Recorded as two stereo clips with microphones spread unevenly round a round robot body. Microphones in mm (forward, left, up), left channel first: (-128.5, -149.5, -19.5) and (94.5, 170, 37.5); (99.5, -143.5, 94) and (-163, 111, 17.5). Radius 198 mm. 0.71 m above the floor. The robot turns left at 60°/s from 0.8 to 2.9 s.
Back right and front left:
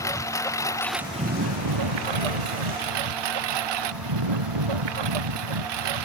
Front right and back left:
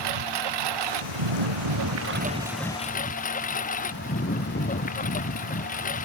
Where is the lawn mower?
150° left; by 6.1 s 25° left.